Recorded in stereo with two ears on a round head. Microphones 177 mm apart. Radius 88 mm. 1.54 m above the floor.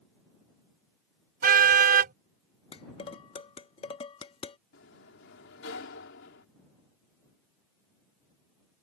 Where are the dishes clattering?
30° left (ahead or behind).